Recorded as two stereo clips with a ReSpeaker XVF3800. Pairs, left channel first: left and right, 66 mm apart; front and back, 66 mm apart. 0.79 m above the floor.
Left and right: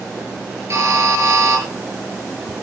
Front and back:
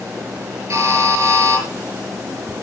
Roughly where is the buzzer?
Behind right.